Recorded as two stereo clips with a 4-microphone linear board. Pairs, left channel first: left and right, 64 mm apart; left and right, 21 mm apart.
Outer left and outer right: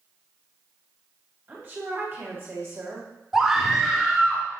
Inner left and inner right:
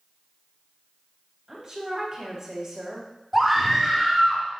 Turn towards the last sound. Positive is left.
turn(degrees=-5)  # may be behind; listen again after turning